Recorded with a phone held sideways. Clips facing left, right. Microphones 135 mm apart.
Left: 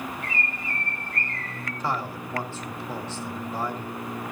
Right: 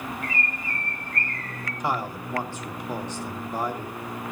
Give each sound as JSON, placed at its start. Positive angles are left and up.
{"t": 0.2, "sound": "a bird", "side_deg": 30, "distance_m": 7.5}
{"t": 1.8, "sound": "a man speaking", "side_deg": -15, "distance_m": 1.8}